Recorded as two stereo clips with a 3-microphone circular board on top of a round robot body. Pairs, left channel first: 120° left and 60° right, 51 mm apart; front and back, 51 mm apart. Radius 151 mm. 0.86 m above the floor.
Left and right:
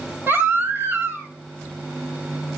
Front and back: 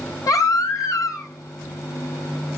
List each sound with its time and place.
0.3 s a baby crying: 5° right, 2.5 m